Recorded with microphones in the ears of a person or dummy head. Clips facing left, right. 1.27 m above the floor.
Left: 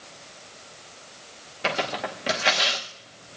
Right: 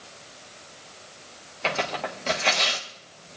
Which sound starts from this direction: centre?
Tearing paper, at 1.6 s.